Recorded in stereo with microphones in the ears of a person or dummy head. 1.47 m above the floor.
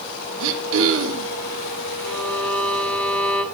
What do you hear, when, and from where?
0.4 s throat clearing: 85° right, 2 m
2.0 s a violin: 10° left (ahead or behind), 3 m